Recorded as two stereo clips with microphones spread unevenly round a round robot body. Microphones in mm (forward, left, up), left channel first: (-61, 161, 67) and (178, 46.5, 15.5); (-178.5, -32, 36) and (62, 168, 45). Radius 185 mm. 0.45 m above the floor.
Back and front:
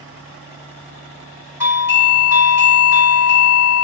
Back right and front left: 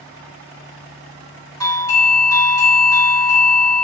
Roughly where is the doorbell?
Right.